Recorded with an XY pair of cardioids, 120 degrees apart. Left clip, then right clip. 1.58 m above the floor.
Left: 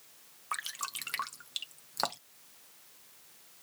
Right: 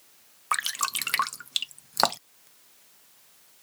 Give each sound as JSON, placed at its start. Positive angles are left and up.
{"t": 0.5, "sound": "dripping", "azimuth_deg": -55}